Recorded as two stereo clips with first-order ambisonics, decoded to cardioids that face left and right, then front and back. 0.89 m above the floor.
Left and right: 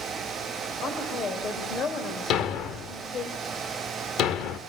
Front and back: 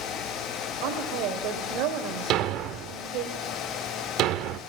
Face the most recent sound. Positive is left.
turn(degrees=140)